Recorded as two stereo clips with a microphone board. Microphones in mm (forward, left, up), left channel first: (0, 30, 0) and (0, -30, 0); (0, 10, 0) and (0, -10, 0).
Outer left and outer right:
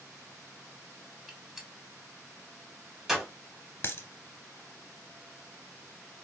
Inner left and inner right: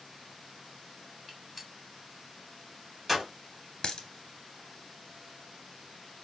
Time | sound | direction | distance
1.3 | a gunshot | 10° right (ahead or behind) | 1.6 m
3.8 | a dropped coin | 40° left (ahead or behind) | 0.9 m